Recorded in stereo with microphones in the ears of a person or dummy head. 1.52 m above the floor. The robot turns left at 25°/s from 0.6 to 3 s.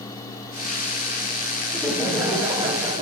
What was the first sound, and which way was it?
Laughter, straight ahead.